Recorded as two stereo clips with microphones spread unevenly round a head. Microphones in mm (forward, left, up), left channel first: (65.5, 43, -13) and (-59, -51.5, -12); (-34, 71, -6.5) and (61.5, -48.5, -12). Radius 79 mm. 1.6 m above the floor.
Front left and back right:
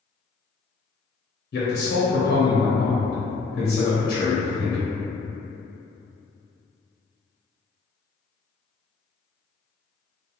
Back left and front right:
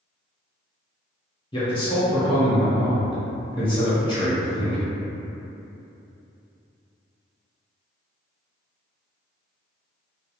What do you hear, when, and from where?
1.5 s a man speaking: 65° left, 0.9 m